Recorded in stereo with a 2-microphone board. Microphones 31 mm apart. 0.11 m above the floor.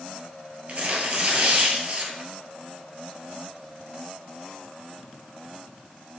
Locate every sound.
0.7 s tearing paper: 45° right (ahead or behind), 1.5 m